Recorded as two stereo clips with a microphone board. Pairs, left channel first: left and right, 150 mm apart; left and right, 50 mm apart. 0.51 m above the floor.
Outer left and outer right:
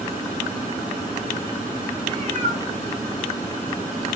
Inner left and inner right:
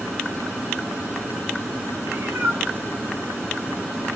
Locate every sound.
2.0 s a cat meowing: 45° right (ahead or behind), 1.5 m; by 4.1 s 85° right, 1.9 m